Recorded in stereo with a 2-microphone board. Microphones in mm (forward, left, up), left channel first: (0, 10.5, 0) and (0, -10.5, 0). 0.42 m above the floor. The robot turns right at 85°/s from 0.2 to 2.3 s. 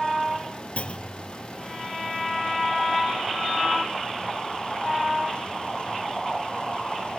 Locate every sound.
0.8 s a clunk: 110° left, 1.9 m; by 1.3 s 160° left, 1.9 m